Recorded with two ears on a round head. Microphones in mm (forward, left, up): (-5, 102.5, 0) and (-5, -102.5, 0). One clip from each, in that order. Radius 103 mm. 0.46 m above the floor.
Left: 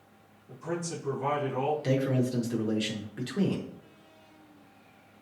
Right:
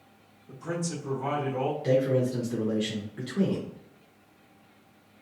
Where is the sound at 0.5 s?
25° right (ahead or behind), 1.6 m; by 1.7 s 35° left (ahead or behind), 1.4 m.